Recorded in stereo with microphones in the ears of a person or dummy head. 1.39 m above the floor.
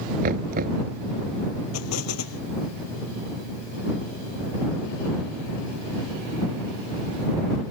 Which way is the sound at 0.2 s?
45° right (ahead or behind).